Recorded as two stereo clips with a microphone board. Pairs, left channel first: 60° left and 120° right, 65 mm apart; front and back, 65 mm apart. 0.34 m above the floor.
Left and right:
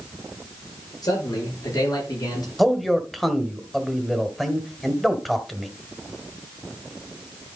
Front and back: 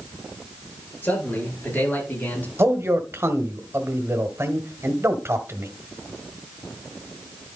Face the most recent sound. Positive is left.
turn(degrees=150)